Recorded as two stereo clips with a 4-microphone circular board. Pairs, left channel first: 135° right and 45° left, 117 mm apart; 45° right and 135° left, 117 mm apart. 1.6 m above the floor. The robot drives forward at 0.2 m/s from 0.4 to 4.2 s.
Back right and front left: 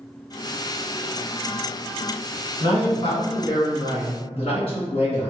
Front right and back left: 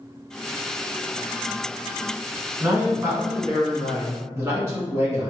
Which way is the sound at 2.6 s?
160° right.